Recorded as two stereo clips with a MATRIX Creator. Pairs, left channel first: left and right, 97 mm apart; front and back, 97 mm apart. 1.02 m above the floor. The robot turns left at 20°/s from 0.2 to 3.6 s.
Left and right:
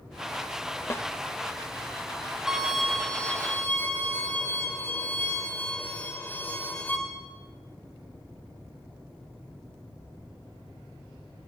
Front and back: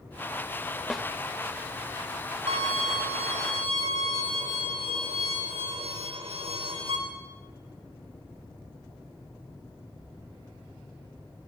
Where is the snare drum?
90° left, 0.7 m; by 1.1 s 85° left, 0.7 m.